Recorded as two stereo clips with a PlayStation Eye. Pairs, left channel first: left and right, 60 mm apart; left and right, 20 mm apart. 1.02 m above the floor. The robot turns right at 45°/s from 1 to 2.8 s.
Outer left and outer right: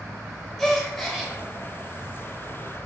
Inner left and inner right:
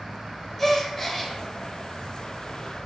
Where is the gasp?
5° left (ahead or behind), 0.6 m; by 1.3 s 10° right (ahead or behind), 0.6 m.